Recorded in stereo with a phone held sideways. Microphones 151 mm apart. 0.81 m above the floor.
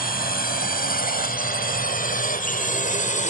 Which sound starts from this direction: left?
A drone, at 0.0 s.